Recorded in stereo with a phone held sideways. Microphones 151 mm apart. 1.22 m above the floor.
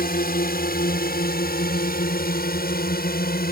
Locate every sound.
0.0 s a drone: 75° left (ahead or behind)